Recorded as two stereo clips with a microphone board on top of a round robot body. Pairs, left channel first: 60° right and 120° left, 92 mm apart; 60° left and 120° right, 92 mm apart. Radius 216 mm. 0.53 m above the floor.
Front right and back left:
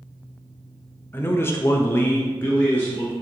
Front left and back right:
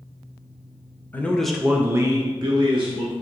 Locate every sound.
1.1 s a man speaking: 5° right, 0.7 m; by 3.1 s 140° right, 1.0 m